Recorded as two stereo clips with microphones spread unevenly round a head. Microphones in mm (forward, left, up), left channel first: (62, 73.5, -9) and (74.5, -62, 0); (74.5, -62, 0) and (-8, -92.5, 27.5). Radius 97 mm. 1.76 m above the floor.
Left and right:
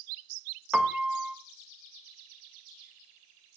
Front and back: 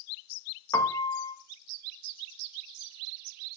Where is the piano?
25° right, 1.1 m.